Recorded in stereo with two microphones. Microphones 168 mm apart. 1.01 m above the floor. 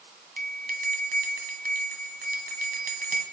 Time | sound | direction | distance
0.4 | a bell | 60° right (ahead or behind) | 1.5 m